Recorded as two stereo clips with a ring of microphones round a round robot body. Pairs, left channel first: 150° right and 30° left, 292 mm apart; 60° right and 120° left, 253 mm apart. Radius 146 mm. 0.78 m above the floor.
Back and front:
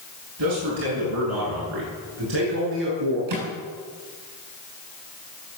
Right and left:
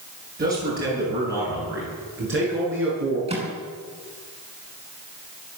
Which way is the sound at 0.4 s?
65° left.